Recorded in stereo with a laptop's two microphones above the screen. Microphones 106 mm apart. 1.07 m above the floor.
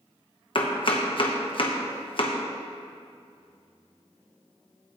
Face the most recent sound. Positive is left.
turn(degrees=50)  # may be behind; listen again after turning